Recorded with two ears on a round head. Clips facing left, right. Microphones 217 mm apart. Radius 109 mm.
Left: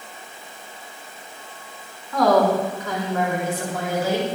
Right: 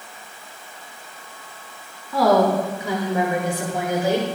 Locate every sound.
2.1 s a woman speaking: 5° right (ahead or behind), 5 m; by 4.3 s 20° right (ahead or behind), 7 m